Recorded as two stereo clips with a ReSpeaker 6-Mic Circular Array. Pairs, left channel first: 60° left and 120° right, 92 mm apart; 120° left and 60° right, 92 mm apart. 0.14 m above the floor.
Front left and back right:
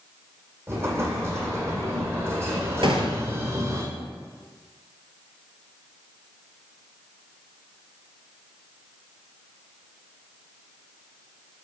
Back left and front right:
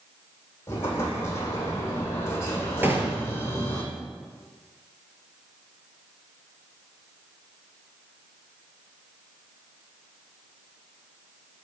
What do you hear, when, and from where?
0.7 s an explosion: straight behind, 2 m
2.8 s a gunshot: 125° right, 1.3 m